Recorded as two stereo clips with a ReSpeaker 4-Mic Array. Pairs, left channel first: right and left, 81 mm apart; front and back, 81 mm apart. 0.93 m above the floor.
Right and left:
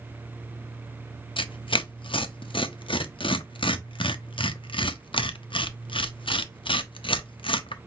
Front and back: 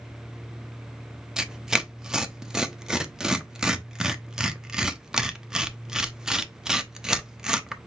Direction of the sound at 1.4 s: 100° right.